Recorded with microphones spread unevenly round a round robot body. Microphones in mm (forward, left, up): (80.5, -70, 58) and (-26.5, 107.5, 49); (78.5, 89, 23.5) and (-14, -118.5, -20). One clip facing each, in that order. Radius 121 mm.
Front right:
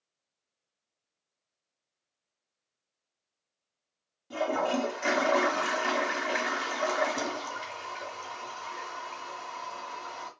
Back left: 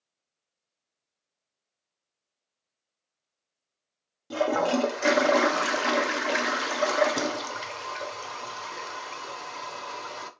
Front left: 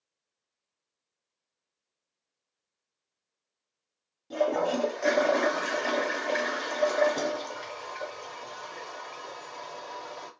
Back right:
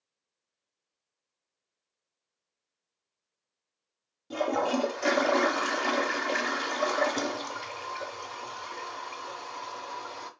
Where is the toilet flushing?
165° left, 0.7 m.